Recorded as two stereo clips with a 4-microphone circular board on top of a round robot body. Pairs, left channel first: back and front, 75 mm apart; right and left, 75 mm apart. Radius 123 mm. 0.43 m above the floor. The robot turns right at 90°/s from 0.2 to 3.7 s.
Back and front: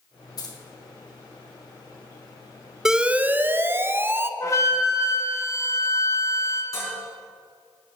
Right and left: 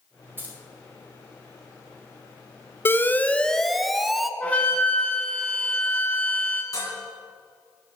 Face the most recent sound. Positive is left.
turn(degrees=-135)